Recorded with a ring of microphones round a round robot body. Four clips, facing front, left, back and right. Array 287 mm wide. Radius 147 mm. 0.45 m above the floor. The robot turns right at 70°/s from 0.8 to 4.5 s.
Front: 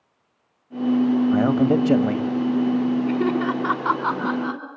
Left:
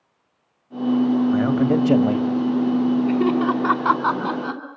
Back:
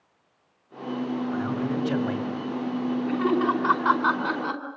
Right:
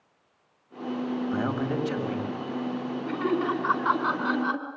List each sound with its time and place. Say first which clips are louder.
1.3 s a man speaking: left 9 dB, front 9 dB; 10° left, 2 m; by 2.3 s 75° left, 2 m
3.1 s laughter: left 7 dB, front 2 dB; 35° left, 4.5 m; by 4.6 s 135° left, 4.5 m